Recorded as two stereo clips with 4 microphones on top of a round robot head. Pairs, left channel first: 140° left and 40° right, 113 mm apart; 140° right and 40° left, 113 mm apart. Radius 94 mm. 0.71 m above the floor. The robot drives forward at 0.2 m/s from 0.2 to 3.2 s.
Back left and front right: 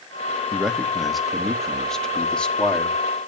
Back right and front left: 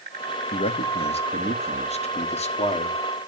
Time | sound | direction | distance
0.5 | a man speaking | 125° right | 1.3 m